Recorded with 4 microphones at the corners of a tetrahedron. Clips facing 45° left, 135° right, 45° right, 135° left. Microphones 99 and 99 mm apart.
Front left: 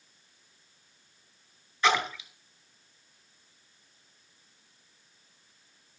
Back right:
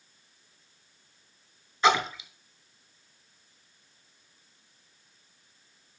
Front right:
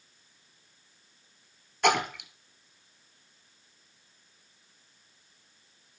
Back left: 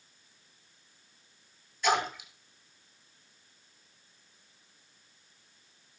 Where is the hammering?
No hammering in this recording.